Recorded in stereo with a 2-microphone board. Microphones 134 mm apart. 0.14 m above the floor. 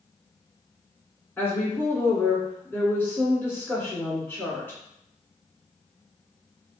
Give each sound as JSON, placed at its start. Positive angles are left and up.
{"t": 1.4, "sound": "a woman speaking", "side_deg": 15, "distance_m": 1.6}